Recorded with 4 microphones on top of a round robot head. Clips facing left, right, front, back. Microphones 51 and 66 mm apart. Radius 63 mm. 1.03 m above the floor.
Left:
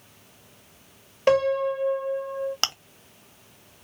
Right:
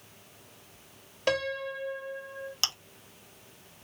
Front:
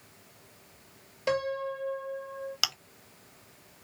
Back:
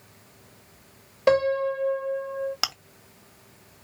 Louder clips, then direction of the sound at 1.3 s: Left 9 dB, back 9 dB; 150° left.